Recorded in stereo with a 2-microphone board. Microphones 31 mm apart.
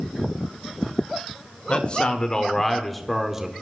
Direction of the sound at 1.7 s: 40° left (ahead or behind).